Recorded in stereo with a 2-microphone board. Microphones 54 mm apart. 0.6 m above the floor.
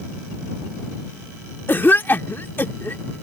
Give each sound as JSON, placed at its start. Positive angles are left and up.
{"t": 1.7, "sound": "a cough", "side_deg": 40}